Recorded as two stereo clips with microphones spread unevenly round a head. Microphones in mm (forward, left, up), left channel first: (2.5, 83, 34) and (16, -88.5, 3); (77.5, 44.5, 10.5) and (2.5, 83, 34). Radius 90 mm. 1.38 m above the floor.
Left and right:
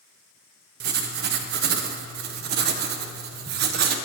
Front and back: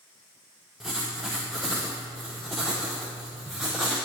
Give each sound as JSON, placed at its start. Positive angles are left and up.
{"t": 0.8, "sound": "writing", "azimuth_deg": -120, "distance_m": 0.6}